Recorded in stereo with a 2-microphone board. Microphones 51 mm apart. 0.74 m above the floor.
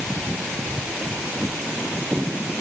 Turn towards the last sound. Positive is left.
No sound to turn to.